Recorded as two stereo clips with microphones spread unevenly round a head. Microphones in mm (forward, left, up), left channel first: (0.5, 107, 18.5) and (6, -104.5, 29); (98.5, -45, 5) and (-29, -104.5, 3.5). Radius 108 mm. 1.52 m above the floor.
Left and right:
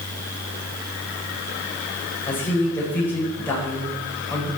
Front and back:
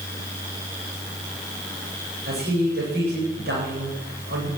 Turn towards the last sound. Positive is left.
turn(degrees=170)